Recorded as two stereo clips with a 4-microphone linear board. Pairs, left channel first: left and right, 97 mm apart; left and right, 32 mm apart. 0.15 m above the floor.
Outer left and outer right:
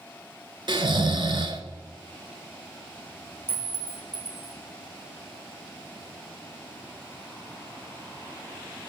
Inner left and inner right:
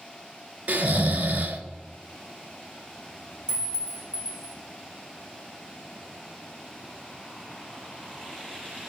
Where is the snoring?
55° right (ahead or behind), 1.1 m.